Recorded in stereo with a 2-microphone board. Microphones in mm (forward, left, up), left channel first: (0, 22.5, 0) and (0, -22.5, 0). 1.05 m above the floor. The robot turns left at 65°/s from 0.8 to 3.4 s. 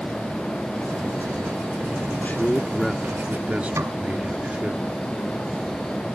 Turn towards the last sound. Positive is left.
turn(degrees=-85)